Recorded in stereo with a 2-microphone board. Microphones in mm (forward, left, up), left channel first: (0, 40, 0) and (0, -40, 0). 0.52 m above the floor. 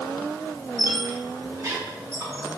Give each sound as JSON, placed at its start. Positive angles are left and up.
{"t": 0.8, "sound": "a squeak", "side_deg": -35, "distance_m": 1.1}